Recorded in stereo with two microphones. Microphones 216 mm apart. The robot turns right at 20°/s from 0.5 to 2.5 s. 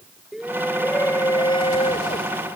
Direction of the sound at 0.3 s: Straight ahead.